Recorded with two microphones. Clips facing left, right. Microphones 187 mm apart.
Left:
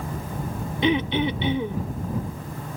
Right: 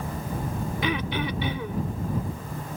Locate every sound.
0.8 s throat clearing: 25° left (ahead or behind)